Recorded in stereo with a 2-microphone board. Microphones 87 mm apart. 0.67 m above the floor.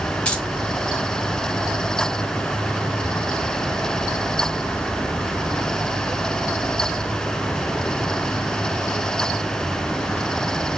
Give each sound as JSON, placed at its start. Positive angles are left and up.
{"t": 0.2, "sound": "keys jangling", "side_deg": 15, "distance_m": 2.5}